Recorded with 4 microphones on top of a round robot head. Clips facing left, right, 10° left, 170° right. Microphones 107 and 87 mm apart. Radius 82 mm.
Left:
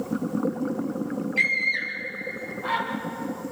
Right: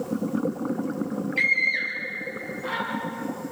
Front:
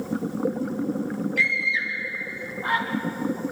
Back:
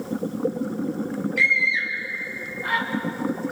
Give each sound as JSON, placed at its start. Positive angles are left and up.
{"t": 1.4, "sound": "a scream", "azimuth_deg": 45, "distance_m": 5.5}